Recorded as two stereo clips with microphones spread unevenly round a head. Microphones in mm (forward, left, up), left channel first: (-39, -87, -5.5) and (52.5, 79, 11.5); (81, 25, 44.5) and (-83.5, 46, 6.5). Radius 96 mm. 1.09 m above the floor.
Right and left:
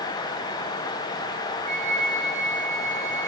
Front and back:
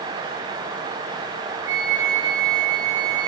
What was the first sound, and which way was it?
A flute, 170° right.